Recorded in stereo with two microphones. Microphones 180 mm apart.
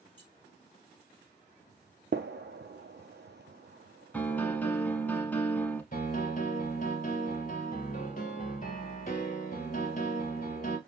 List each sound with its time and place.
0.2 s keys jangling: 25° right (ahead or behind), 3 m
2.1 s a gunshot: 85° right, 0.6 m
4.1 s a piano: 10° left (ahead or behind), 0.8 m
5.9 s a piano: 50° left (ahead or behind), 1.1 m